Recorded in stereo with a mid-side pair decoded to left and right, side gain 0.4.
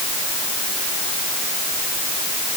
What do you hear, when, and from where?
Only background noise.